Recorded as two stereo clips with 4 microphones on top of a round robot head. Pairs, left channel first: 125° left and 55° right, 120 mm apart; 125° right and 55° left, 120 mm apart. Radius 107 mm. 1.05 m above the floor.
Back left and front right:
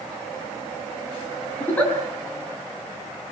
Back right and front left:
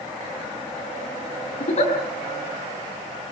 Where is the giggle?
155° right, 7 m.